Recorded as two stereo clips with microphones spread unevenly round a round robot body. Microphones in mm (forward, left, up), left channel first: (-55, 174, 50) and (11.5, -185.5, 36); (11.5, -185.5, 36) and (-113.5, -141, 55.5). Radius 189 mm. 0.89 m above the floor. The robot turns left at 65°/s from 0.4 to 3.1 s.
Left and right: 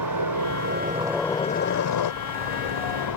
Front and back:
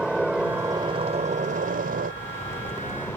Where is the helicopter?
115° right; by 3.2 s 65° left.